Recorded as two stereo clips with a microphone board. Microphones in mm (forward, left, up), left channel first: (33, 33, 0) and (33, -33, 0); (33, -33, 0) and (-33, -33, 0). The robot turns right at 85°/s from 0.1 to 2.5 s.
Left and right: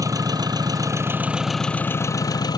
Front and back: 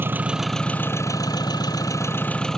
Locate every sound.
0.0 s an engine running: 120° right; by 2.6 s 80° left